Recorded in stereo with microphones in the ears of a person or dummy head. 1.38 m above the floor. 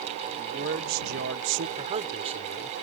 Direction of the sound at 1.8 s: 40° right (ahead or behind).